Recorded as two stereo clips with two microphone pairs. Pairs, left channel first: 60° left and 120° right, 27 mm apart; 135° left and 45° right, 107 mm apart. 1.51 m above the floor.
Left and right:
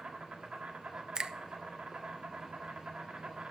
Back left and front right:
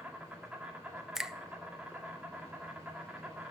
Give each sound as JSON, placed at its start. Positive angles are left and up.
{"t": 0.0, "sound": "an insect", "azimuth_deg": -120, "distance_m": 1.6}
{"t": 1.1, "sound": "a finger snap", "azimuth_deg": -135, "distance_m": 0.5}